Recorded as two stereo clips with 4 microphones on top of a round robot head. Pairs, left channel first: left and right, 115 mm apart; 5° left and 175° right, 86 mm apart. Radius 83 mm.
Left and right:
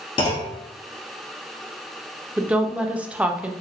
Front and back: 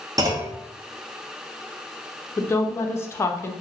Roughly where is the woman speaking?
Ahead.